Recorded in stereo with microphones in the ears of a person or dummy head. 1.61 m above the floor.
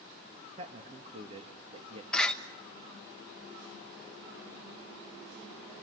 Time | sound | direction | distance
0.6 | a man speaking | 40° right (ahead or behind) | 2.5 m
2.1 | a door slam | 5° left (ahead or behind) | 1.4 m